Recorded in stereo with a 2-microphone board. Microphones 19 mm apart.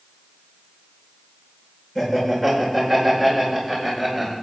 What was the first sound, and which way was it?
Laughter, 25° left (ahead or behind).